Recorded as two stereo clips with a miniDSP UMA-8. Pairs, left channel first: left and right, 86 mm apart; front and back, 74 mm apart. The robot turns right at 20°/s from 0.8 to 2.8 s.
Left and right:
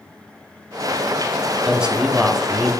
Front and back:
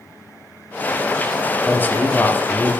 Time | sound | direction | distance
1.6 | a man speaking | 25° right | 1.6 m